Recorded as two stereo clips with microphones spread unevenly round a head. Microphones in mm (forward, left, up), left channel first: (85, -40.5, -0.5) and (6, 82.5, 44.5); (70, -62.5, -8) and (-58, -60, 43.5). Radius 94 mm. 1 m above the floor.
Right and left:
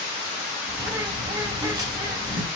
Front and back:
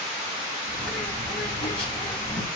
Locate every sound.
0.7 s a bird: 55° left, 8.5 m